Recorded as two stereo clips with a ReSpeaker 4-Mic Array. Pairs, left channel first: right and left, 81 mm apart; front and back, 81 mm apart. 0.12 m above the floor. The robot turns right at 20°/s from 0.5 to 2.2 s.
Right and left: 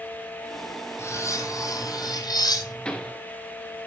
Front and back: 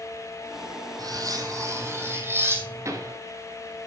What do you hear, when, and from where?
1.0 s cutlery clinking: 145° right, 2.5 m; by 3.1 s 125° right, 2.5 m
2.9 s a pop: 165° right, 2.5 m